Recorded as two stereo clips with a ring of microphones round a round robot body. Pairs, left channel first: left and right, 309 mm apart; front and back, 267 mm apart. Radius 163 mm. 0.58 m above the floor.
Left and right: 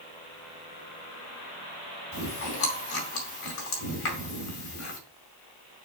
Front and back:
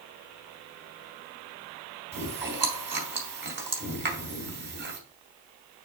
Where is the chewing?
130° left, 2.5 m.